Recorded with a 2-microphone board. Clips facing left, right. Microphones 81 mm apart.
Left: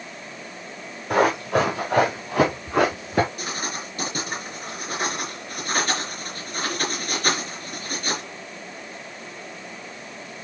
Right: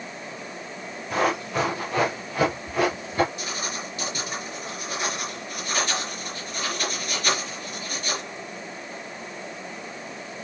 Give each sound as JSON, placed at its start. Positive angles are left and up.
{"t": 1.1, "sound": "running footsteps", "side_deg": 60, "distance_m": 5.0}
{"t": 3.4, "sound": "writing", "side_deg": 45, "distance_m": 4.5}